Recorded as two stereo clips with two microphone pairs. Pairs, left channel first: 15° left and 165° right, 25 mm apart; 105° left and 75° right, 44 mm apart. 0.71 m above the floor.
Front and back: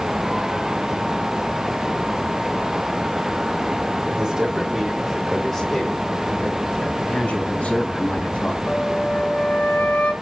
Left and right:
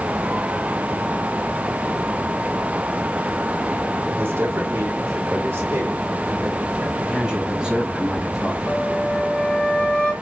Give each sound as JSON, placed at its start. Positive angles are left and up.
{"t": 4.0, "sound": "a man speaking", "azimuth_deg": -115, "distance_m": 2.0}
{"t": 7.0, "sound": "a man speaking", "azimuth_deg": -5, "distance_m": 3.5}
{"t": 8.7, "sound": "a flute", "azimuth_deg": 30, "distance_m": 2.5}